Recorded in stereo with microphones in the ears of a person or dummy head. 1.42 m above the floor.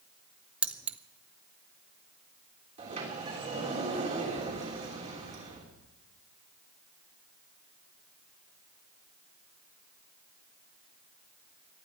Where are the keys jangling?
5° right (ahead or behind), 0.6 m.